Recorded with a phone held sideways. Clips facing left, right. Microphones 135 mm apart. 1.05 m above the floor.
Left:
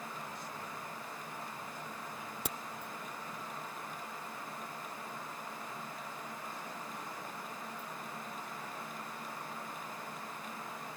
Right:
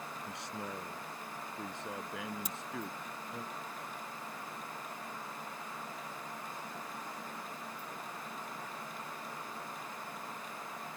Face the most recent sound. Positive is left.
turn(degrees=70)  # may be behind; listen again after turning